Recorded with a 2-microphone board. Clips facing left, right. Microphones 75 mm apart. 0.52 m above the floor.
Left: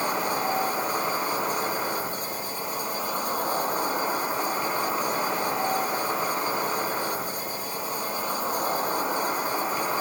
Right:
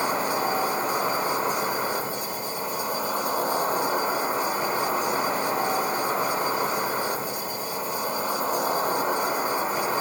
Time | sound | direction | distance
0.0 | an insect | 40° right (ahead or behind) | 1.6 m